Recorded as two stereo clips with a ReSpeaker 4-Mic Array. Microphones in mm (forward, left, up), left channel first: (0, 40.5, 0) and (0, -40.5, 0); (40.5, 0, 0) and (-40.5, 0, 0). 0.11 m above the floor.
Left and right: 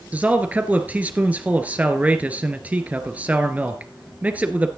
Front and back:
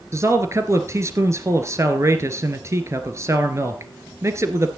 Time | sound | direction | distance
0.1 | a man speaking | 150° right | 1.6 m